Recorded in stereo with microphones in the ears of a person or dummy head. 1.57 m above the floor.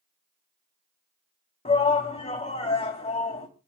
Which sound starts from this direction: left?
A shout, at 1.6 s.